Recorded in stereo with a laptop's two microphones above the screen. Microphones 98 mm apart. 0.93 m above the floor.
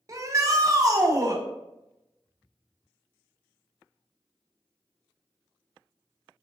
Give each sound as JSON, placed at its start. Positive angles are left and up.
{"t": 0.1, "sound": "a shout", "side_deg": -35, "distance_m": 0.7}